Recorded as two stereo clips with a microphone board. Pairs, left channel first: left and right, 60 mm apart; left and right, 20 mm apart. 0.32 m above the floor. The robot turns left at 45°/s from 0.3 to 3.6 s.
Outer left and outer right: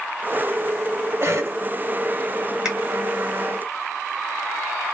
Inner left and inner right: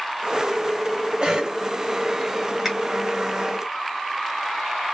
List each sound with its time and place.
1.2 s a cough: 50° right (ahead or behind), 1.2 m; by 1.6 s 45° right (ahead or behind), 1.2 m
2.6 s a finger snap: 10° right (ahead or behind), 1.6 m